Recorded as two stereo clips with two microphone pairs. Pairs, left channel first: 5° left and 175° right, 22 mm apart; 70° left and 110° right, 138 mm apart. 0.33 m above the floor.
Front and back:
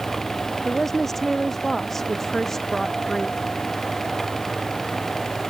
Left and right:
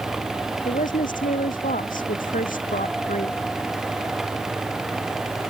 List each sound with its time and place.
0.7 s a woman speaking: 85° left; by 3.4 s 80° left